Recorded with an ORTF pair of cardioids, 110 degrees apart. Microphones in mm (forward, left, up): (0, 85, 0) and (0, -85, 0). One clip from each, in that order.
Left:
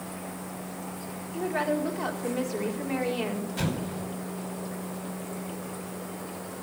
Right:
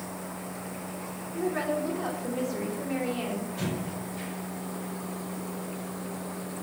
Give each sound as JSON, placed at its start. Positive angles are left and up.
{"t": 1.3, "sound": "a woman speaking", "azimuth_deg": 25, "distance_m": 4.0}
{"t": 3.6, "sound": "an explosion", "azimuth_deg": 50, "distance_m": 5.0}